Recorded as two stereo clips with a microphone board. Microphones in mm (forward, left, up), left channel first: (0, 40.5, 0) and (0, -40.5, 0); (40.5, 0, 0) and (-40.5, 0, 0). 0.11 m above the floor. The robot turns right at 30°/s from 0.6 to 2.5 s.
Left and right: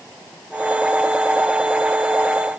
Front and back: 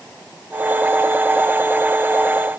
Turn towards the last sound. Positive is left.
No sound to turn to.